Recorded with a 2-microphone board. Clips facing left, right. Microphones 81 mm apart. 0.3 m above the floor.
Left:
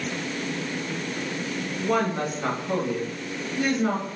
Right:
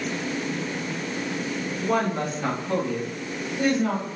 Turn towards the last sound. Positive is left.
turn(degrees=30)  # may be behind; listen again after turning